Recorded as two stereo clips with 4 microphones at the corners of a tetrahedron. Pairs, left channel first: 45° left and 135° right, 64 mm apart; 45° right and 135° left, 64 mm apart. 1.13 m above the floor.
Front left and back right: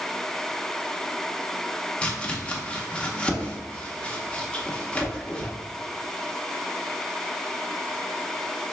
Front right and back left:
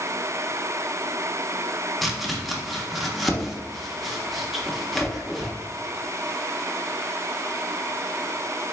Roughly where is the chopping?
Ahead left.